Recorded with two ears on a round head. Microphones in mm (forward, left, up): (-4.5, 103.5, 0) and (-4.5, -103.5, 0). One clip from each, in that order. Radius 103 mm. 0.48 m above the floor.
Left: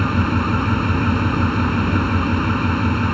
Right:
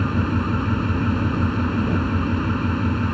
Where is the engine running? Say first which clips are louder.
Left 4 dB; 25° left (ahead or behind).